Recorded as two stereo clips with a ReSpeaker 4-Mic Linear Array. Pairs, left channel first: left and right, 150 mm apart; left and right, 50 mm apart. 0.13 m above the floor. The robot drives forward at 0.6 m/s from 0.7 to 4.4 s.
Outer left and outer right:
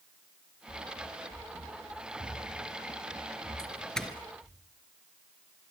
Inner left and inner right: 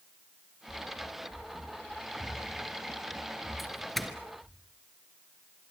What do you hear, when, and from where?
0.7 s running footsteps: 45° right (ahead or behind), 4 m; by 4.6 s 50° right (ahead or behind), 9.5 m
3.6 s a doorbell: 5° left (ahead or behind), 2.5 m